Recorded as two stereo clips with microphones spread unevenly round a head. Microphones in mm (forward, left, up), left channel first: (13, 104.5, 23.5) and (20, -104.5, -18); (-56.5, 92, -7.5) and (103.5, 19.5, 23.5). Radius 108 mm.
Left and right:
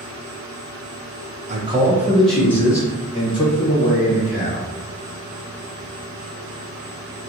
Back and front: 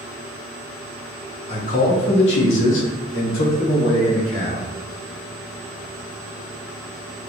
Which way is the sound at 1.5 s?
145° right.